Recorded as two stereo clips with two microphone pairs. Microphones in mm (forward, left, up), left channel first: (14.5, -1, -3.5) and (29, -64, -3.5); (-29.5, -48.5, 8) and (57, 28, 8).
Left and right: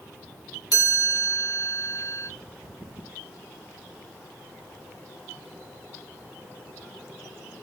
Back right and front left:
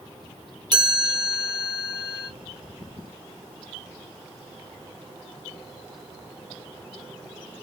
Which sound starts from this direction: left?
A chime, at 0.7 s.